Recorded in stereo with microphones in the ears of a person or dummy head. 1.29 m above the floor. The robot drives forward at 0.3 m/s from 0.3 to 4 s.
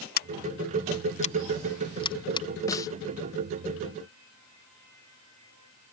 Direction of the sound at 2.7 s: 20° left (ahead or behind).